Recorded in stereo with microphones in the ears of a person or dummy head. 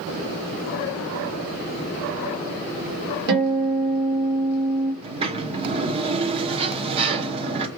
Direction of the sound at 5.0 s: 30° right (ahead or behind).